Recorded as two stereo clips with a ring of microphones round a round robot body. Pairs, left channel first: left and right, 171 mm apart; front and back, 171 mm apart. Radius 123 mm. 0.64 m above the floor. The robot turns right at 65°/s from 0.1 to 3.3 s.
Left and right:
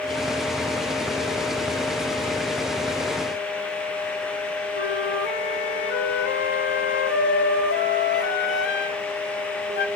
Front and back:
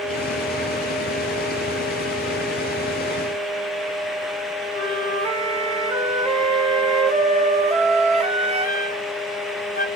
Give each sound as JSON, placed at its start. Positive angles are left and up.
{"t": 4.7, "sound": "a flute", "azimuth_deg": 125, "distance_m": 1.5}